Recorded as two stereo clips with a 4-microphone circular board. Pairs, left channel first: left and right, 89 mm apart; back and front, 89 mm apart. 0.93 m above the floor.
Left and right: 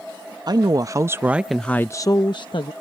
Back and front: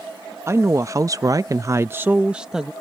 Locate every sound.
0.5 s a woman speaking: 55° right; by 2.7 s 85° left